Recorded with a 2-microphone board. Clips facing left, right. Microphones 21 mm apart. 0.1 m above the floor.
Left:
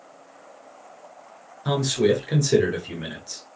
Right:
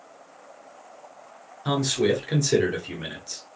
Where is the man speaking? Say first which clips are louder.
Left 2 dB; 5° right (ahead or behind), 1.1 m.